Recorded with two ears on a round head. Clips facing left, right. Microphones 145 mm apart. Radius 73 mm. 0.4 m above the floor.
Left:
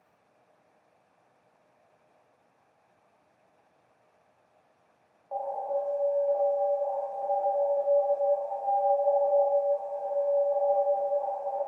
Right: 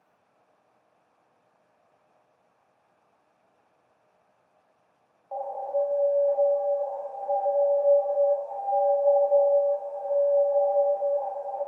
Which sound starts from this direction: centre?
An alarm, at 5.3 s.